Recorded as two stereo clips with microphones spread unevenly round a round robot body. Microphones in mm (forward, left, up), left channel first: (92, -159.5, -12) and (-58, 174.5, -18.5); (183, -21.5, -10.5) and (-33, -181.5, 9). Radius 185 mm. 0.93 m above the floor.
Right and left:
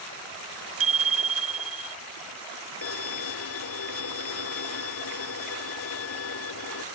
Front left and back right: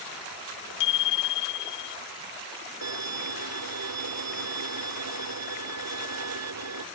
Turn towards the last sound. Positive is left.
turn(degrees=-120)